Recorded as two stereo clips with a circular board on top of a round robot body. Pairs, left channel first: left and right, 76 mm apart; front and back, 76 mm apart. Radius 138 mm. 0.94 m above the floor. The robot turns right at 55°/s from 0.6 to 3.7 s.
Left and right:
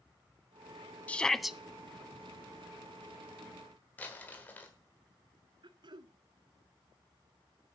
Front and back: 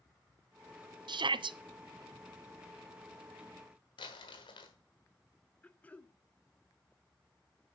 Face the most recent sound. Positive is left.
turn(degrees=-70)